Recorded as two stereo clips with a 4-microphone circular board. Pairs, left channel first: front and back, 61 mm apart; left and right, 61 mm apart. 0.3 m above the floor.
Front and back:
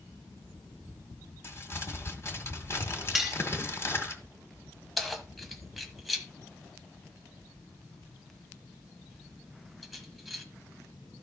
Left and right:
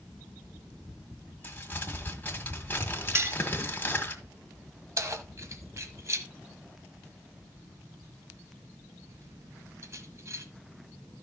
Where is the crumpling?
35° left, 1.8 m.